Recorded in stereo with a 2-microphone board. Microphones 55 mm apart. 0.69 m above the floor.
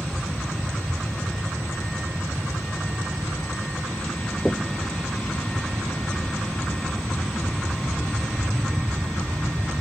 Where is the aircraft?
15° left (ahead or behind).